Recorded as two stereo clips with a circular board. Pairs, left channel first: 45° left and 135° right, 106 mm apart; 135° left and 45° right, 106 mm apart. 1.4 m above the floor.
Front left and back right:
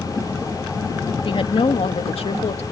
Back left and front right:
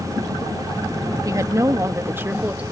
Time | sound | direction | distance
1.2 | a woman speaking | 10° left | ?